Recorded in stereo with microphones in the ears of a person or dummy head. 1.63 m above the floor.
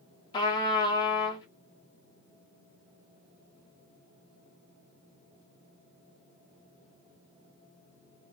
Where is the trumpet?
25° left (ahead or behind), 1.4 m.